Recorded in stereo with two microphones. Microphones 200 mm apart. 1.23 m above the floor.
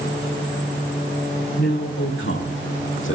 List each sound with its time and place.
1.6 s a man speaking: 75° left (ahead or behind), 3 m; by 3.2 s 85° left, 1.9 m